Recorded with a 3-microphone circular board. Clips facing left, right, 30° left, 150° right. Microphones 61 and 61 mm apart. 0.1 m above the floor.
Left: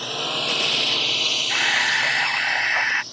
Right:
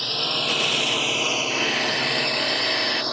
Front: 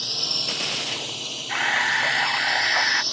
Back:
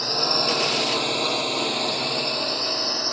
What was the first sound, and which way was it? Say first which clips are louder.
A drone: even, back 9 dB; 170° left.